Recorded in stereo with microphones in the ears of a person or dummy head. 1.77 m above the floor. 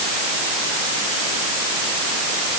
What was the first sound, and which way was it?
Only background noise.